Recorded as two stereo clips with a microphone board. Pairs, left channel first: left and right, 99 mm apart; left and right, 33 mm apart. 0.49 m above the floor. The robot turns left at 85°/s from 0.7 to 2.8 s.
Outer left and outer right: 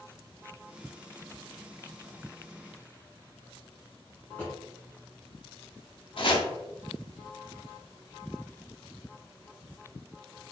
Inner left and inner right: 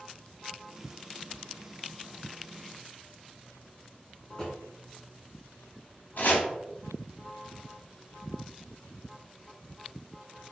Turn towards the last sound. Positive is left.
turn(degrees=60)  # may be behind; listen again after turning